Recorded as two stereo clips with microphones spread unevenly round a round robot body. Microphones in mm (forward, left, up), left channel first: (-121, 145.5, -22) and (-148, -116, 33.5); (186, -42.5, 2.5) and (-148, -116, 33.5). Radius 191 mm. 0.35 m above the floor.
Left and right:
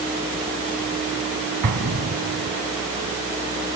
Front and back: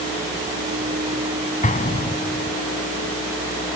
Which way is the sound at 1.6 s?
55° right.